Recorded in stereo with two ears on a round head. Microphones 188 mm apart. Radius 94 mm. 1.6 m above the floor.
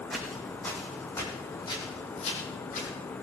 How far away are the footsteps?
About 4.5 m.